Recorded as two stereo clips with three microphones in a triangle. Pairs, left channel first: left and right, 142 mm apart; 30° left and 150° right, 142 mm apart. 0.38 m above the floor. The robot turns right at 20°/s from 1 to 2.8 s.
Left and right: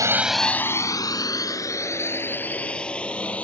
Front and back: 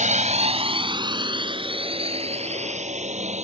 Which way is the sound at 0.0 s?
155° right.